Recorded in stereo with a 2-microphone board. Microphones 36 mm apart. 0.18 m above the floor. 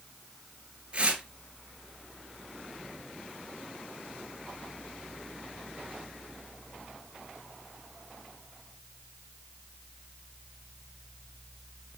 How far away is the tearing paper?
About 2.5 m.